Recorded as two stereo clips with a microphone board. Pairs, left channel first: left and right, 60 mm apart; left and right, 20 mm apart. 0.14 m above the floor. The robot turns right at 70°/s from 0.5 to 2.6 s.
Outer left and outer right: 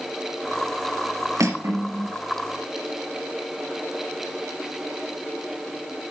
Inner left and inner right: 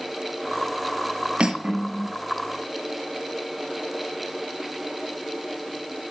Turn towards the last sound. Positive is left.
turn(degrees=5)